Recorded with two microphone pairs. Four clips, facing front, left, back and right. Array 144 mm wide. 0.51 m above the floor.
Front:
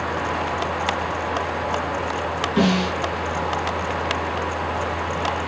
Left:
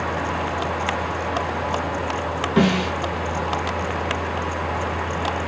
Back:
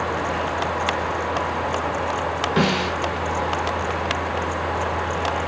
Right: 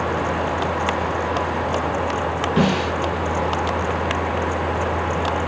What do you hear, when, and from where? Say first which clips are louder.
2.6 s a snare drum: left 1 dB, front 2 dB; 145° left, 3.5 m